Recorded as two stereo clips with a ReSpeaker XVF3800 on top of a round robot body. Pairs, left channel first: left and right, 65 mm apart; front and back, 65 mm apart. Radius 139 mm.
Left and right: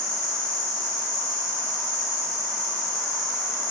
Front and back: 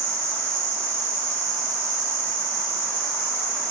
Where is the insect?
170° left, 1.4 m.